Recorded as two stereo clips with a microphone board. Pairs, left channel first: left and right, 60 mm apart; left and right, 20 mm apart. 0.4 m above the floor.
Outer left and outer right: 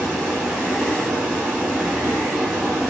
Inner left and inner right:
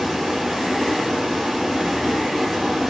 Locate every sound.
0.0 s running water: 10° right (ahead or behind), 3 m